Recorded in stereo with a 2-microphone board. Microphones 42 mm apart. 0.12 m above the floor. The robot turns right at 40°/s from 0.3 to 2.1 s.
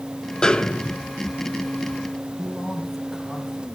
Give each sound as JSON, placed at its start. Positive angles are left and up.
{"t": 0.4, "sound": "a snare drum", "side_deg": 20, "distance_m": 0.7}
{"t": 2.4, "sound": "a man speaking", "side_deg": -5, "distance_m": 5.5}